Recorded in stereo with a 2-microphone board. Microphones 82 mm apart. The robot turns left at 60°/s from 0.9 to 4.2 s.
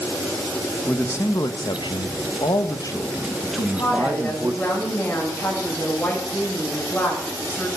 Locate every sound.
0.9 s a man speaking: 160° left, 0.9 m; by 4.6 s 40° right, 0.9 m
3.6 s a woman speaking: 60° left, 5.5 m; by 7.7 s 20° left, 5.5 m